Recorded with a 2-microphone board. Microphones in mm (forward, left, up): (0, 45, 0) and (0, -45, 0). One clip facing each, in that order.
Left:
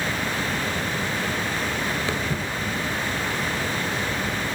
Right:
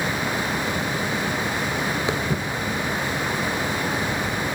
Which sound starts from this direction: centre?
Footsteps, at 2.1 s.